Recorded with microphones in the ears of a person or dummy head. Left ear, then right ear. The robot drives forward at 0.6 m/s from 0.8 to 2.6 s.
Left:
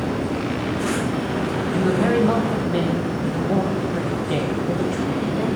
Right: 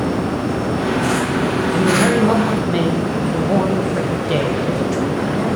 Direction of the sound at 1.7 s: 5° right (ahead or behind).